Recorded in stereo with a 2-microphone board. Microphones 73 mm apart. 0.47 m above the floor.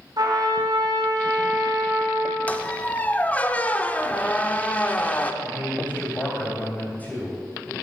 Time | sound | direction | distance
0.2 | a trumpet | 65° right (ahead or behind) | 3 m
2.5 | a squeak | 20° left (ahead or behind) | 0.5 m
5.4 | a man speaking | 20° left (ahead or behind) | 3 m